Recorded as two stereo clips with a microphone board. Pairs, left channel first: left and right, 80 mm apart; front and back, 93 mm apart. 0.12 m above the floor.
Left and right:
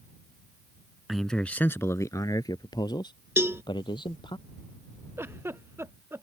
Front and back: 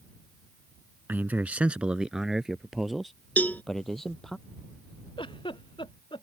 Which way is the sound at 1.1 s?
170° right.